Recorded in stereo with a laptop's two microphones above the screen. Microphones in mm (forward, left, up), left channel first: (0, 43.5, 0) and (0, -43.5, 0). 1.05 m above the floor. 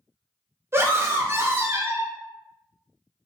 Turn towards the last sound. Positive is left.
turn(degrees=-30)  # may be behind; listen again after turning